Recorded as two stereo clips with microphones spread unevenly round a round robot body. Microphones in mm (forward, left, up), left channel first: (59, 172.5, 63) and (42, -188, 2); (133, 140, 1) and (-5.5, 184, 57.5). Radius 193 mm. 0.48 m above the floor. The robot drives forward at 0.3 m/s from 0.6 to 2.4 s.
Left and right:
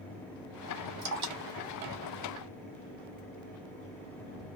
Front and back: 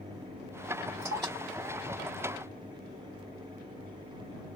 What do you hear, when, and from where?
1.0 s dripping: 140° right, 1.0 m; by 3.2 s 150° right, 1.3 m